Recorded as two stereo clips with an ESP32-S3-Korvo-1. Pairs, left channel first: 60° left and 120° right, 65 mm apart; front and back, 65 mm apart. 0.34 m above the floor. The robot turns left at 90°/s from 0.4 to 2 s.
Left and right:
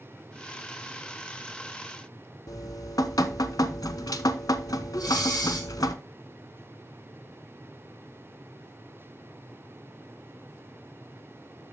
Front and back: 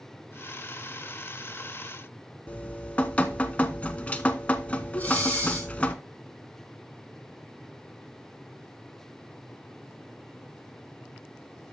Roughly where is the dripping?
Ahead left.